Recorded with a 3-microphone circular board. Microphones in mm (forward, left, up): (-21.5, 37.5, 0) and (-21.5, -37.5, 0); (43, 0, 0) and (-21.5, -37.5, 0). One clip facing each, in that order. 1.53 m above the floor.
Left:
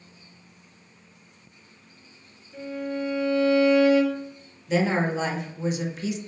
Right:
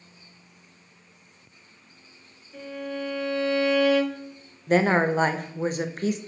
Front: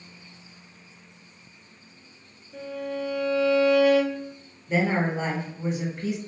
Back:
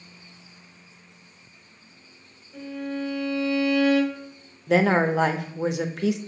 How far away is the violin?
About 2 m.